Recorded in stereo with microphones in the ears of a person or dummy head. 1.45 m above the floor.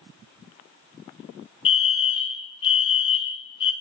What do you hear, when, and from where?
1.6 s a fire alarm: 25° left (ahead or behind), 0.9 m